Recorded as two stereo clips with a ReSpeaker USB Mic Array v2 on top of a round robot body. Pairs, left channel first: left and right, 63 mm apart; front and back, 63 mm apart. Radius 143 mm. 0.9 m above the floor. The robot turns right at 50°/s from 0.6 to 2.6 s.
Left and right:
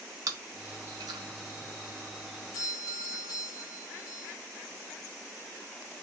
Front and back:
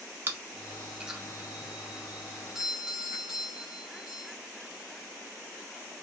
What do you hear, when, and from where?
0.3 s chewing: 125° right, 1.2 m; by 1.2 s 95° right, 1.2 m
2.5 s a doorbell: 95° left, 1.8 m